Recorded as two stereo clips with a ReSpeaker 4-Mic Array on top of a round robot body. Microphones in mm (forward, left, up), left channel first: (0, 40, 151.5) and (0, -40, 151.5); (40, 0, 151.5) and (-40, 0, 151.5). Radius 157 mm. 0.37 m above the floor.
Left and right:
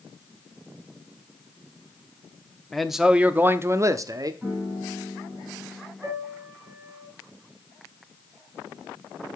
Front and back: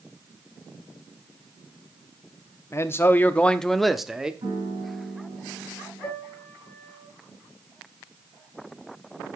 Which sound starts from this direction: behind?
A piano, at 4.4 s.